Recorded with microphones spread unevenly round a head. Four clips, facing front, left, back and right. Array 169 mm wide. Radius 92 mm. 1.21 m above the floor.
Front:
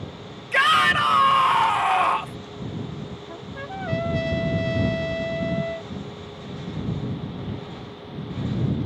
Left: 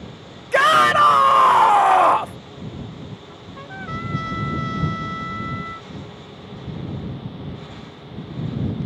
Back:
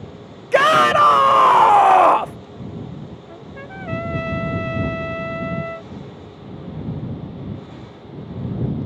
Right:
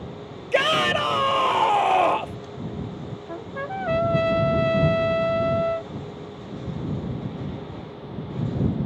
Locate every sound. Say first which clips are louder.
0.5 s a shout: left 7 dB, back 6 dB; 175° right
3.3 s a trumpet: right 6 dB, front 1 dB; 95° right